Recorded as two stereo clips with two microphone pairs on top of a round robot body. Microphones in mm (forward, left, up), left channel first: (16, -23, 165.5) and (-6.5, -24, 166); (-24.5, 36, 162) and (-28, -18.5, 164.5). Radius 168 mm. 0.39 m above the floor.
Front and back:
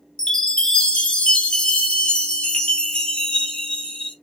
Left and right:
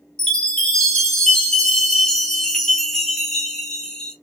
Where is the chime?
20° left, 1.4 m.